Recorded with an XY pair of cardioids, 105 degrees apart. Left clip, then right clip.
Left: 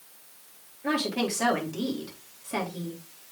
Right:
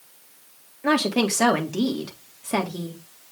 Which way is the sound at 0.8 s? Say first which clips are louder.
Right 6 dB; 55° right.